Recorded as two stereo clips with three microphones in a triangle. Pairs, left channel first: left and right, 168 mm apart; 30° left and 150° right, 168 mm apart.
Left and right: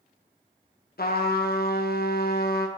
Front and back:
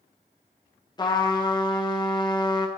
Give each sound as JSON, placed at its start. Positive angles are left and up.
{"t": 1.0, "sound": "a trumpet", "azimuth_deg": 90, "distance_m": 1.0}